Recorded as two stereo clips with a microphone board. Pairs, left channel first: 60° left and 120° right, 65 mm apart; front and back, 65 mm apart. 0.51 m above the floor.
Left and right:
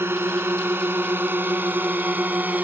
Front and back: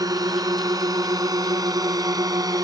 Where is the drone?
170° right; by 2.6 s 175° left.